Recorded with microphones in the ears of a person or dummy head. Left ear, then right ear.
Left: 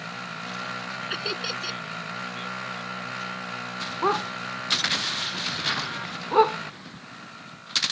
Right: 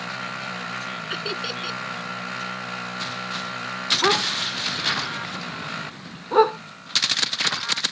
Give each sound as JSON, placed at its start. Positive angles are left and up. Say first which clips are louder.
{"t": 1.1, "sound": "laughter", "louder": "even", "side_deg": 20}
{"t": 4.0, "sound": "a dog barking", "louder": "right 2 dB", "side_deg": 5}